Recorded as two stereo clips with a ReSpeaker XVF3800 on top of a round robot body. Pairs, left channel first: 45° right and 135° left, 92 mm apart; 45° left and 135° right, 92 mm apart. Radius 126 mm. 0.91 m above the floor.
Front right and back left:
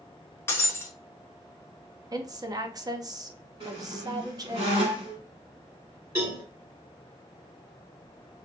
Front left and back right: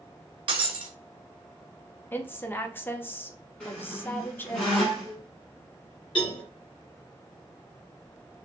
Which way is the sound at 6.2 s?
80° left.